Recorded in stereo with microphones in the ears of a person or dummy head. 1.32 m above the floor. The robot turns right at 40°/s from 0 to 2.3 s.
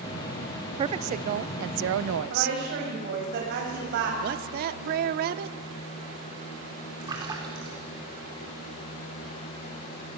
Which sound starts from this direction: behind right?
A woman speaking, at 0.8 s.